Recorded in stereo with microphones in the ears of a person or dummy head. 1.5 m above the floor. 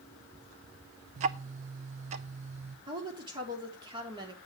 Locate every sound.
1.2 s ticking: 35° right (ahead or behind), 0.5 m
2.9 s a woman speaking: 30° right (ahead or behind), 3 m